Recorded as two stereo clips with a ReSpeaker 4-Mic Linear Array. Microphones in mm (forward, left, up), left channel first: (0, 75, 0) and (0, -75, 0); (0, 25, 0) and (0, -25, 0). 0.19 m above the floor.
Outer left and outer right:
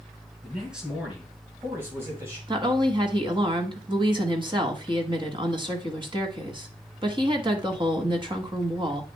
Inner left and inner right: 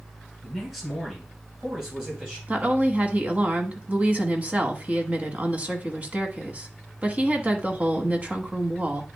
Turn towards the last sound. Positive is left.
turn(degrees=-35)  # may be behind; listen again after turning